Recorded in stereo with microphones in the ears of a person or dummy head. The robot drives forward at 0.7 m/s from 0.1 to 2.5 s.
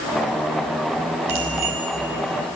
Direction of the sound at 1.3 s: 40° right (ahead or behind).